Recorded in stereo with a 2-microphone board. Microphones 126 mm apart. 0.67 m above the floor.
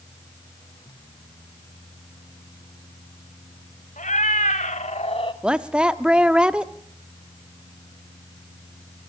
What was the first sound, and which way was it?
A cat meowing, 80° left.